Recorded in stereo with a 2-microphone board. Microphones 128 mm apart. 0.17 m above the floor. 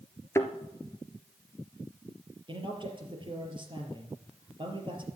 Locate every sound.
0.3 s a thud: 20° left (ahead or behind), 1.4 m
2.5 s a man speaking: 40° right (ahead or behind), 4 m